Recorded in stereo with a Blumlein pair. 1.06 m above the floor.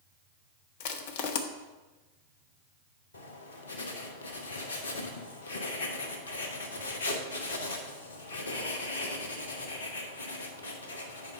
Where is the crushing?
50° left, 0.8 m.